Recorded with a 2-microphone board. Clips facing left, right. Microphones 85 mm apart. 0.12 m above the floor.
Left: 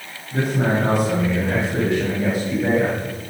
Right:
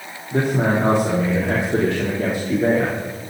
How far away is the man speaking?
About 3.5 m.